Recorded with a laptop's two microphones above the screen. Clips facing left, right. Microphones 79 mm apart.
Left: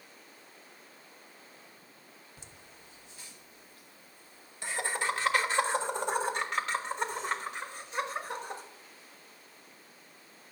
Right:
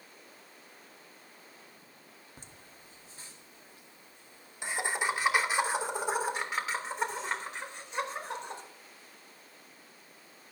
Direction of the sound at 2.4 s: 45° right (ahead or behind).